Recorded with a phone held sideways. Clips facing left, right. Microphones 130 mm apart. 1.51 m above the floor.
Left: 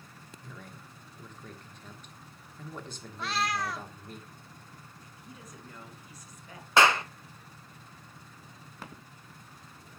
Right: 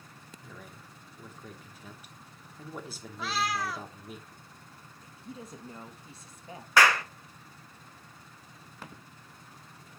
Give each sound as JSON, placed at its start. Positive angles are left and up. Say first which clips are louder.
{"t": 0.4, "sound": "a man speaking", "louder": "left 1 dB", "side_deg": -5, "distance_m": 2.0}
{"t": 3.2, "sound": "a cat meowing", "louder": "even", "side_deg": 0, "distance_m": 0.7}
{"t": 5.0, "sound": "a woman speaking", "louder": "right 8 dB", "side_deg": -25, "distance_m": 1.6}
{"t": 6.8, "sound": "a clap", "louder": "left 1 dB", "side_deg": 20, "distance_m": 1.1}